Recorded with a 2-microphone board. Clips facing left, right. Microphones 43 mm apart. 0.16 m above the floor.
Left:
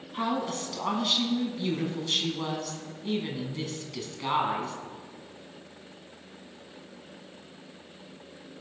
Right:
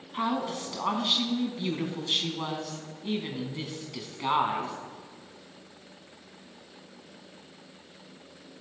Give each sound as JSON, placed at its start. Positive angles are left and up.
{"t": 0.1, "sound": "a woman speaking", "side_deg": -15, "distance_m": 1.7}